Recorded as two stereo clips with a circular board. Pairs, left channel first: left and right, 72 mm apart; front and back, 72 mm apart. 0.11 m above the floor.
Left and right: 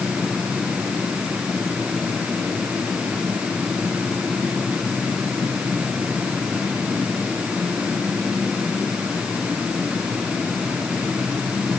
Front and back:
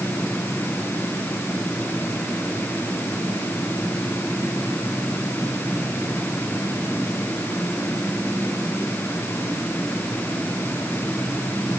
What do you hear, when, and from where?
Only background noise.